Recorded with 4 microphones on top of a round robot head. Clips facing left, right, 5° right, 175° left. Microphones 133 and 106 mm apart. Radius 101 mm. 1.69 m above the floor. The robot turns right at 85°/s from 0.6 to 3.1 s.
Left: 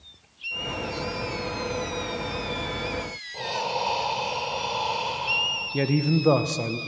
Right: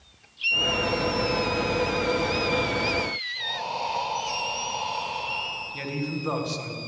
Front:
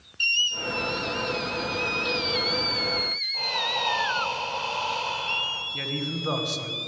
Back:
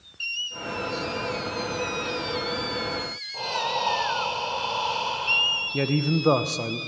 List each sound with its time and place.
3.3 s breathing: 110° left, 2.5 m
5.7 s a man speaking: 130° left, 1.2 m